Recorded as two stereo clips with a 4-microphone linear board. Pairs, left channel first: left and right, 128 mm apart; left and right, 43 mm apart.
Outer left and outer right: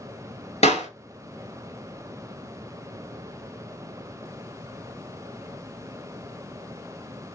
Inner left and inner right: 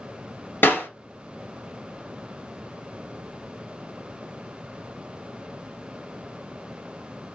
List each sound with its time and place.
0.6 s a clap: 55° left (ahead or behind), 1.9 m